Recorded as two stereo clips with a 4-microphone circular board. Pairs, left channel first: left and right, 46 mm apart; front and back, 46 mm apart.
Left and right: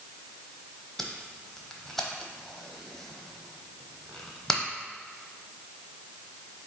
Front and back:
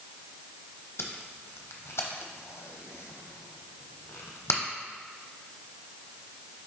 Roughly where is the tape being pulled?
Ahead.